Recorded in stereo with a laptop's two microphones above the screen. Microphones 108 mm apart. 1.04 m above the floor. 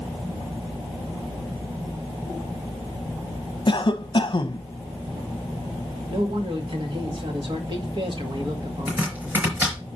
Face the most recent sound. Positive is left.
turn(degrees=-15)  # may be behind; listen again after turning